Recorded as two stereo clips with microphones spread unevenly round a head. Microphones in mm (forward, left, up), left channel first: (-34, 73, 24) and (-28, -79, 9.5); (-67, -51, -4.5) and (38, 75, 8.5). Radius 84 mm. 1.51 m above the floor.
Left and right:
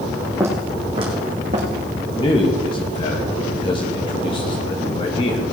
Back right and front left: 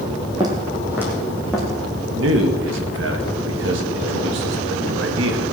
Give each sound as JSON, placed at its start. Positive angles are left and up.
{"t": 0.4, "sound": "footsteps", "azimuth_deg": -10, "distance_m": 2.5}
{"t": 2.1, "sound": "a man speaking", "azimuth_deg": 30, "distance_m": 2.0}